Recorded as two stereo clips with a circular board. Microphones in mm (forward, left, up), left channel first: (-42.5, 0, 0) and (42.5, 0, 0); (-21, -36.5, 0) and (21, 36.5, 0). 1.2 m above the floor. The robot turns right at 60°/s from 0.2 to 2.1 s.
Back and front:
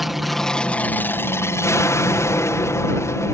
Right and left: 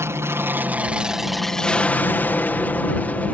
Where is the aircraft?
90° left; by 3.3 s 175° right.